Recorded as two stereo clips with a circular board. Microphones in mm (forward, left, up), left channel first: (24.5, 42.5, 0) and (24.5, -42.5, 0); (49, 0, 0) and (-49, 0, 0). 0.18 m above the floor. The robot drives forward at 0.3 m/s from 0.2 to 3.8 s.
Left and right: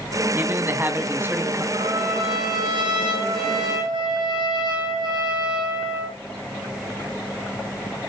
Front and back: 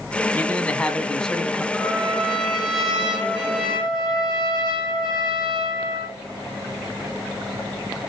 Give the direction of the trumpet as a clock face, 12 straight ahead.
3 o'clock.